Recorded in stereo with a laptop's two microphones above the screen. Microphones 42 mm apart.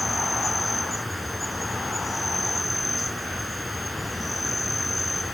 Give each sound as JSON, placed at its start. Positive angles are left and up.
{"t": 0.0, "sound": "an insect", "side_deg": 0}